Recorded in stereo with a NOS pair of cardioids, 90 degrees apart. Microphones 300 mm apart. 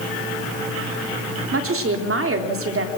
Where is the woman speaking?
45° right, 3.5 m.